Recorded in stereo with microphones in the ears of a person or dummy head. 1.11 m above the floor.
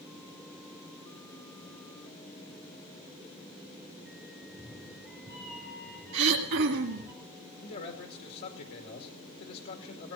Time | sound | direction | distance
4.4 | a cat meowing | 20° left (ahead or behind) | 4 m
6.1 | throat clearing | 65° right (ahead or behind) | 2 m
7.6 | a man speaking | 55° left (ahead or behind) | 2 m